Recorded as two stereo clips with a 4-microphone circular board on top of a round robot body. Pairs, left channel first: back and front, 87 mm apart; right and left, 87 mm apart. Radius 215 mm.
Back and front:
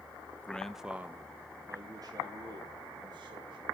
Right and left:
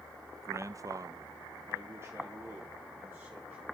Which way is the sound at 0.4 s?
120° left.